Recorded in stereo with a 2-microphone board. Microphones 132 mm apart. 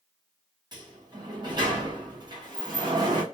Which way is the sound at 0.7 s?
35° right (ahead or behind).